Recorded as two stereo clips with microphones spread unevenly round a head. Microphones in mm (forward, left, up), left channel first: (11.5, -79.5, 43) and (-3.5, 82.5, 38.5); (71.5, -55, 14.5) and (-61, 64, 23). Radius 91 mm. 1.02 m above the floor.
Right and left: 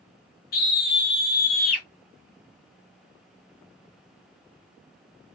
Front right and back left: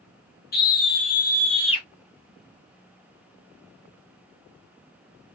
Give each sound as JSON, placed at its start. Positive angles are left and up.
{"t": 0.5, "sound": "a scream", "azimuth_deg": -70, "distance_m": 1.7}